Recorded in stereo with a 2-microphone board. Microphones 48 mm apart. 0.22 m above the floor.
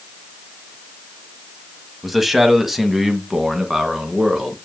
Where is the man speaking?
5° right (ahead or behind), 1.0 m; by 4.6 s 10° right (ahead or behind), 2 m.